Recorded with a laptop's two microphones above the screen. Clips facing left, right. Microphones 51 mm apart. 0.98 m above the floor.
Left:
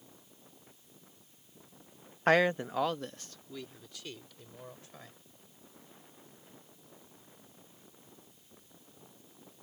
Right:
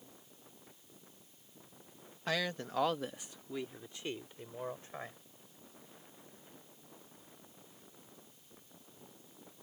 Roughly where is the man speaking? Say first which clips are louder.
Left 10 dB; left.